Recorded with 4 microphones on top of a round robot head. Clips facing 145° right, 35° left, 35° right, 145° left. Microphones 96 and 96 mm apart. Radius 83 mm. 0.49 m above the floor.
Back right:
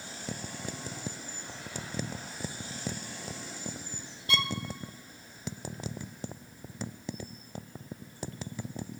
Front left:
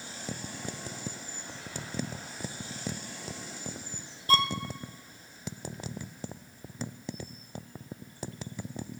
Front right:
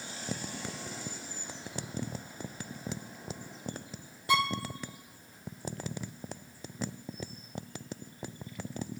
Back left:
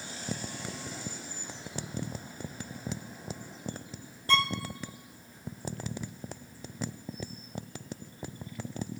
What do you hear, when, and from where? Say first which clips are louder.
4.3 s a violin: front left 6 dB, even; 40° left, 0.6 m